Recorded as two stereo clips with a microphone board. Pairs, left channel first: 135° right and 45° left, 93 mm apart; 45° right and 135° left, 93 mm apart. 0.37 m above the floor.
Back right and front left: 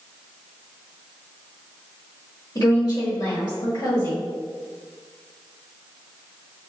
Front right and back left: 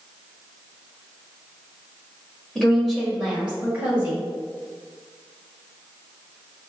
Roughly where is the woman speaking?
Behind right.